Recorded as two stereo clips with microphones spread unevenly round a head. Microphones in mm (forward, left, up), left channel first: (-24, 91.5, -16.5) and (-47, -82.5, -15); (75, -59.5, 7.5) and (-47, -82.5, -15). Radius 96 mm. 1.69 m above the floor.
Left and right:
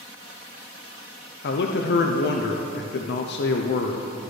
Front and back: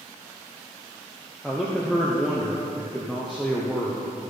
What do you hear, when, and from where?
1.4 s a man speaking: 95° left, 0.6 m